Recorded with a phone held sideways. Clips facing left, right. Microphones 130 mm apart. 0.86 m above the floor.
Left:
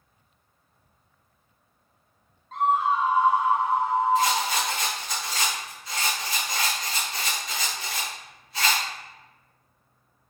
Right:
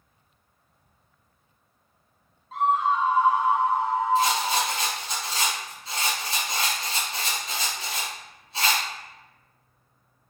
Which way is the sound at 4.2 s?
25° right (ahead or behind).